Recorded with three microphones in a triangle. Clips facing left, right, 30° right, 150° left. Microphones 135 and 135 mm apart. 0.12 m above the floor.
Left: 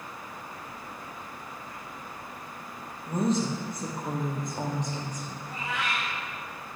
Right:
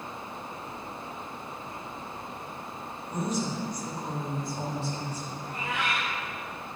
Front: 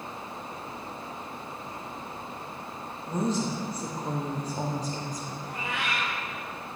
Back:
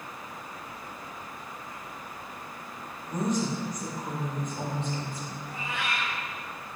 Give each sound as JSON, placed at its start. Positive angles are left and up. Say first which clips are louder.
{"t": 3.1, "sound": "a woman speaking", "louder": "left 4 dB, even", "azimuth_deg": 30, "distance_m": 3.5}
{"t": 5.4, "sound": "a cat meowing", "louder": "right 1 dB, front 1 dB", "azimuth_deg": -55, "distance_m": 3.5}